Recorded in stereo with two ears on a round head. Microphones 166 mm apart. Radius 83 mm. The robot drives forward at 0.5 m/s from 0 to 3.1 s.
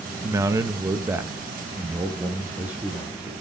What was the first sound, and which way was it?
A man speaking, 15° right (ahead or behind).